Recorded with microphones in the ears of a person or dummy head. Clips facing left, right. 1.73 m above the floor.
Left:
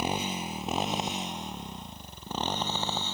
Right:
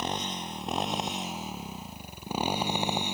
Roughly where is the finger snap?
I don't hear a finger snap.